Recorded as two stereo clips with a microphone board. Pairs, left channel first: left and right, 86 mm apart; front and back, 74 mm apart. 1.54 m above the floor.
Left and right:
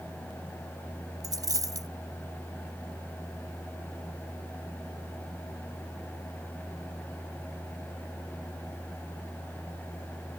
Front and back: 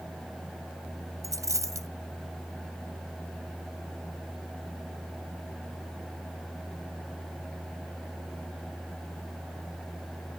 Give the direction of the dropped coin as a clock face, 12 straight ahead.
5 o'clock.